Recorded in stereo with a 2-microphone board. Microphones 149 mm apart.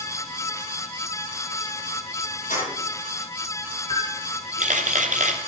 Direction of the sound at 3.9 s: 60° right (ahead or behind).